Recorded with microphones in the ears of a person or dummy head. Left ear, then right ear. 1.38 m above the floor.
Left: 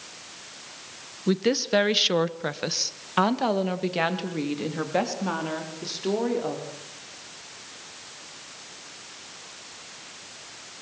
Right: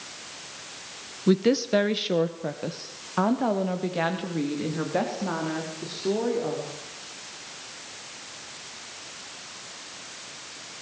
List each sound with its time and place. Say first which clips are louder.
1.3 s a woman speaking: right 1 dB; centre (ahead or behind), 1.4 m; by 6.6 s 80° left, 4.5 m